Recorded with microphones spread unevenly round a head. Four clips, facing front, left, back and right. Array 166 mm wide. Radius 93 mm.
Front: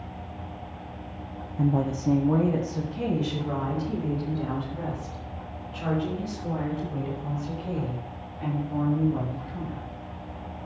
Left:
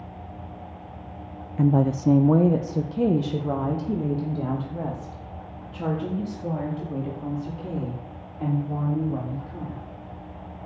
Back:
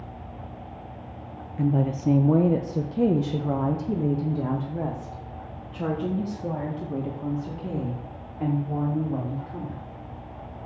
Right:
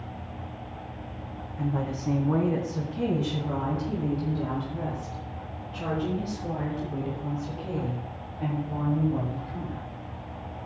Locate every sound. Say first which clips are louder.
1.6 s a woman speaking: left 9 dB, back 1 dB; 95° left, 0.7 m; by 9.8 s 150° left, 6 m